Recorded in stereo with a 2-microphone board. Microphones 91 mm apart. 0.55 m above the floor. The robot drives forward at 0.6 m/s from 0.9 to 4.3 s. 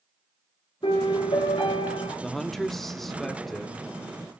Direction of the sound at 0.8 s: 85° left.